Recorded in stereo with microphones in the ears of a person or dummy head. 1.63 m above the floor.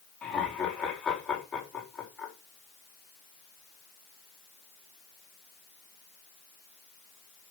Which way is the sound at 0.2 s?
10° left (ahead or behind).